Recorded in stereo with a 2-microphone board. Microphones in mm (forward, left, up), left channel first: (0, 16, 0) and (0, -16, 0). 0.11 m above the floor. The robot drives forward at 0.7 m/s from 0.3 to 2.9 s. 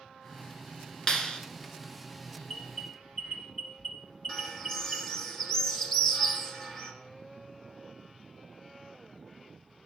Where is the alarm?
30° left (ahead or behind), 1.8 m.